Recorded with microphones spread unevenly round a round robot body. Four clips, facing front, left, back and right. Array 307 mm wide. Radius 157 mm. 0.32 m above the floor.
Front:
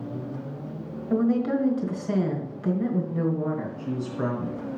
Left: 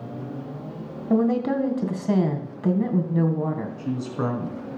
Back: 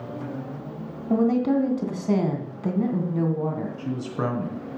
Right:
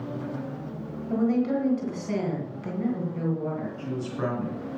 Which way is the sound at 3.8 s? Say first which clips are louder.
Left 3 dB, back 1 dB; 155° left.